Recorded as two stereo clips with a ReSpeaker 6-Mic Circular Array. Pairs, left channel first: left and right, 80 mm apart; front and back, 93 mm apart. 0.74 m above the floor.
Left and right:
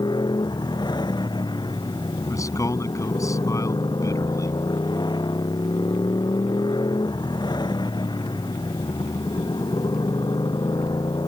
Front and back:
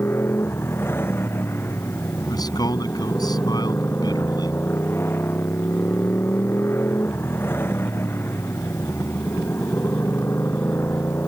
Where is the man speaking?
45° left.